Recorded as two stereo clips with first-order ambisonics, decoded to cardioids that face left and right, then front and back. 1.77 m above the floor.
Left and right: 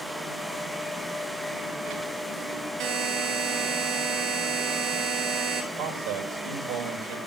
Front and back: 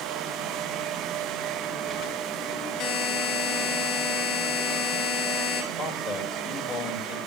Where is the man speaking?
90° right, 3 m.